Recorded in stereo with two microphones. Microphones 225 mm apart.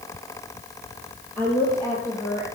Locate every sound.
1.4 s a woman speaking: 5° left (ahead or behind), 2.5 m; by 2.5 s 15° left (ahead or behind), 3.5 m